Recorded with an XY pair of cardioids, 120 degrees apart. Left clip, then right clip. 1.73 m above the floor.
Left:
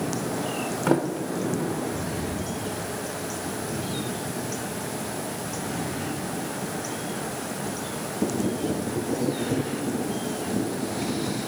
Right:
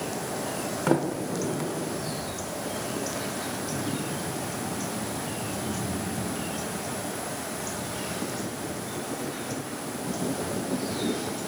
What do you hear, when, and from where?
0.9 s a sliding door: 5° left, 0.6 m